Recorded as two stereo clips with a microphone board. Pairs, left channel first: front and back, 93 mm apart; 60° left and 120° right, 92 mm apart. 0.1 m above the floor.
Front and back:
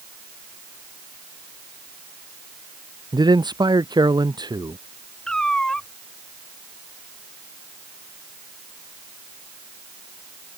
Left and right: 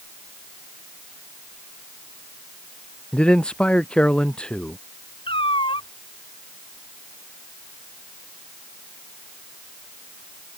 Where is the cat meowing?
80° left.